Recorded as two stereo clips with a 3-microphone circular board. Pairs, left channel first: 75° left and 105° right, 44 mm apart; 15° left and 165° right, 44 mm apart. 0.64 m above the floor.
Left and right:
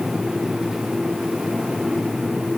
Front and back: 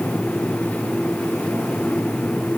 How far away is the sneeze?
I don't hear a sneeze.